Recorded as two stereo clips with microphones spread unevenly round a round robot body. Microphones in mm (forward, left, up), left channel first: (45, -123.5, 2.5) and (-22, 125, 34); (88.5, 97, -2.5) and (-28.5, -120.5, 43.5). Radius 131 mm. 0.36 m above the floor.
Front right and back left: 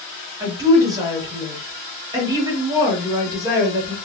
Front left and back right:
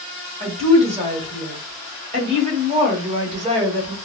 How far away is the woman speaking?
About 1.0 m.